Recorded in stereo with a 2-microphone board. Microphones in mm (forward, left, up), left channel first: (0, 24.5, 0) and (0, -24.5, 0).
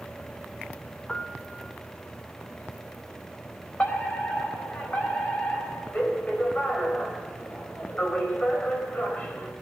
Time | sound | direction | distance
1.1 | a piano | 15° left (ahead or behind) | 1.9 m
3.8 | a fire alarm | 30° left (ahead or behind) | 4.5 m